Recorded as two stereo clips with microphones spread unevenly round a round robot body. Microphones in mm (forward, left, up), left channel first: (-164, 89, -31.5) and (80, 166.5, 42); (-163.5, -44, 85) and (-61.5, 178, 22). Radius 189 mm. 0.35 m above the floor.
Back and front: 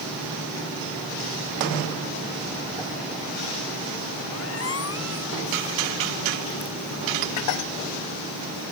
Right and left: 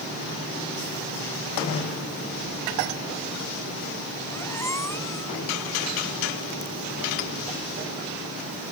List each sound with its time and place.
4.3 s a squeak: 165° left